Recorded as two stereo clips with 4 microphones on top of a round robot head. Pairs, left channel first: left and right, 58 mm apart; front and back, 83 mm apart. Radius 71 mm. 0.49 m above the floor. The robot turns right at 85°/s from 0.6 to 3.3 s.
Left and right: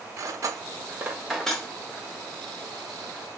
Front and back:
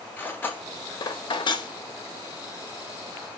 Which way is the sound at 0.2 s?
65° right.